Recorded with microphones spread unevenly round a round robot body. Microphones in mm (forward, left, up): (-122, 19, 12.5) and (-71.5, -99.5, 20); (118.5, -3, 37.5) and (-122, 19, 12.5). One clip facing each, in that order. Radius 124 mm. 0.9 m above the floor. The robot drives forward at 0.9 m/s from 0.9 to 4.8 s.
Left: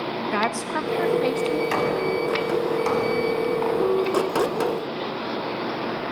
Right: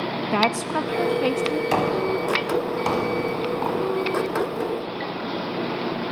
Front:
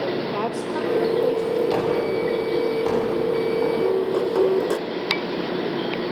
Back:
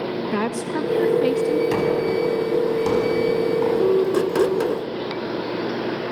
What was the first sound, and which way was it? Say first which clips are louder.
A woman speaking: right 4 dB, back 2 dB; 135° right.